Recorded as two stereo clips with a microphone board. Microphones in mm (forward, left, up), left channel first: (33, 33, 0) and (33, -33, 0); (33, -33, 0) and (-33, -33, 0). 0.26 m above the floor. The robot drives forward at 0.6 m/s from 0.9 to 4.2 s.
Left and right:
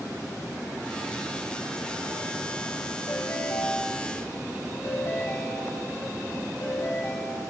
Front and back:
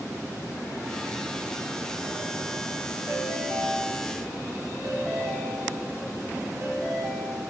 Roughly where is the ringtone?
Behind left.